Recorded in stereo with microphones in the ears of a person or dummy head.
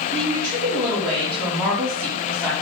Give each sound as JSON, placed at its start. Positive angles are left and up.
{"t": 0.1, "sound": "a woman speaking", "side_deg": -10, "distance_m": 2.5}